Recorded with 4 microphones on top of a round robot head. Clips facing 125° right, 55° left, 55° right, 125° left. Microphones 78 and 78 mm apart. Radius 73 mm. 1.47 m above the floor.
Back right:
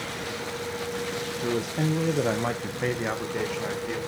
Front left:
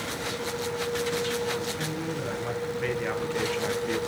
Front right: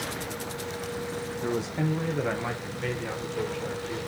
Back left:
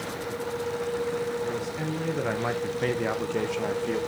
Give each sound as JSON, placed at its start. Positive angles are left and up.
{"t": 1.4, "sound": "a man speaking", "azimuth_deg": -110, "distance_m": 1.5}